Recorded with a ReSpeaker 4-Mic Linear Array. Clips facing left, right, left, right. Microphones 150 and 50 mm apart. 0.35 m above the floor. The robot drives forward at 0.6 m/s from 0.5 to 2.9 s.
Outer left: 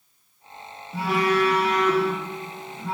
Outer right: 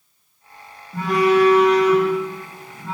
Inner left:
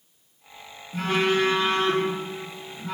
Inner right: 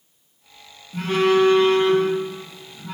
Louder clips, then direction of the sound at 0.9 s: Outer right 6 dB, inner right 5 dB; 5° left (ahead or behind).